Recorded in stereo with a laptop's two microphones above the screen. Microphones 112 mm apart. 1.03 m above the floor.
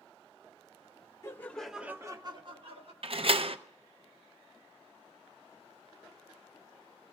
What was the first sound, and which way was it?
Laughter, 25° left (ahead or behind).